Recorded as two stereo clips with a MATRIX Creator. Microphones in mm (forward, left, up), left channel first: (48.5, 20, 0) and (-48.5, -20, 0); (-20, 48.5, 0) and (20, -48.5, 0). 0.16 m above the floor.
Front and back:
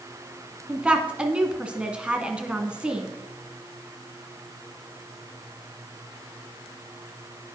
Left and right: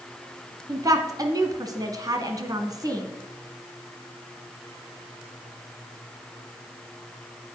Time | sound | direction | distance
0.7 | a woman speaking | 85° right | 1.4 m